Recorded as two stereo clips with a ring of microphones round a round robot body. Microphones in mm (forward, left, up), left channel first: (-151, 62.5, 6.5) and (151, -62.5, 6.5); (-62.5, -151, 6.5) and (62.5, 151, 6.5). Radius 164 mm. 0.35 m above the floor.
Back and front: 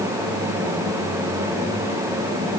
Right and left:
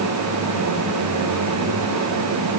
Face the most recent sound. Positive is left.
No sound to turn to.